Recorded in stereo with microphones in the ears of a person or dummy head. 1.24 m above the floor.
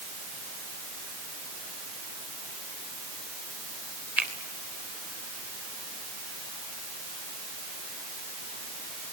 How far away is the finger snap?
About 3.5 m.